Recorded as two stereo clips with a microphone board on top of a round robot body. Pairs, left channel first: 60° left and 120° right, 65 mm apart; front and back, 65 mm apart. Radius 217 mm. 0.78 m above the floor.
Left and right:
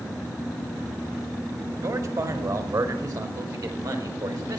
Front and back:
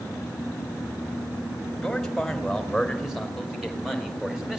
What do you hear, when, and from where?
1.8 s a man speaking: 85° right, 4 m; by 4.6 s 100° right, 5.5 m